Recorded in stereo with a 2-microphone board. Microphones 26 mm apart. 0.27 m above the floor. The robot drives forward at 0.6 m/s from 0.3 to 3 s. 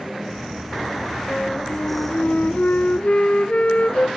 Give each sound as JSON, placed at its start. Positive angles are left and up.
{"t": 1.3, "sound": "a flute", "side_deg": 40, "distance_m": 0.9}